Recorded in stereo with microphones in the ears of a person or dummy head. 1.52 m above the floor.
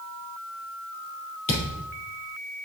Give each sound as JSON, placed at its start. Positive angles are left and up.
{"t": 1.5, "sound": "a thud", "side_deg": 35, "distance_m": 3.5}